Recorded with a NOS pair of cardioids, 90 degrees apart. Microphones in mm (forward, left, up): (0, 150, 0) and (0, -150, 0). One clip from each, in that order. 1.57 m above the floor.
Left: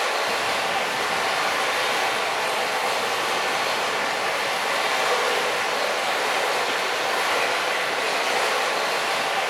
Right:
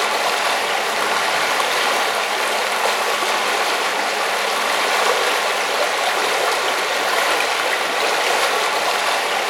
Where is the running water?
55° right, 0.8 m.